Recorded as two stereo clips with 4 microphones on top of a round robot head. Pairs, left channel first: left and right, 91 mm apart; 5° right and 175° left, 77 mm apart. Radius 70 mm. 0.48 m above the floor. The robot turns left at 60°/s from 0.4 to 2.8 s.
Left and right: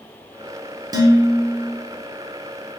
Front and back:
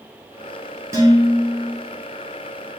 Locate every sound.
0.9 s dishes clattering: 130° right, 1.0 m; by 1.7 s straight behind, 1.0 m